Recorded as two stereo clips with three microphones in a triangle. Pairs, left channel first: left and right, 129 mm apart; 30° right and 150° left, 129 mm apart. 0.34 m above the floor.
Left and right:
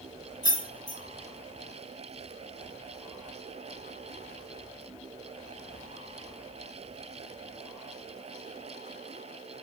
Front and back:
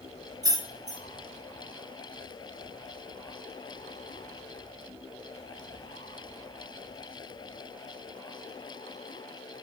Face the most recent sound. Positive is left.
turn(degrees=115)